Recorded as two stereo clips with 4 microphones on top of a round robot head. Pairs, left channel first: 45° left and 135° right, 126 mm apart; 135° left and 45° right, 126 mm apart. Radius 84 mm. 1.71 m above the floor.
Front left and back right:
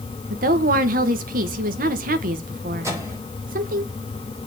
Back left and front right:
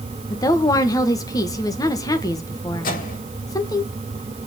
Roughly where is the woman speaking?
Behind.